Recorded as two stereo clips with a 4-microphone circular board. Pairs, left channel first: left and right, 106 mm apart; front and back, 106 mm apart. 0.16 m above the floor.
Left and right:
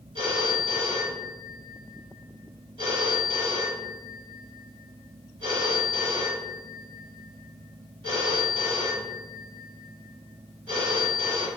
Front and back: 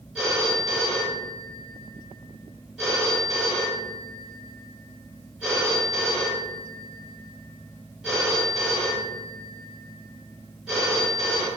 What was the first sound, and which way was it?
A phone ringing, 95° right.